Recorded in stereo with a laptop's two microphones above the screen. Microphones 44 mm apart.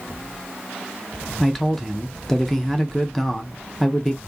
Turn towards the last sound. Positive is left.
turn(degrees=10)  # may be behind; listen again after turning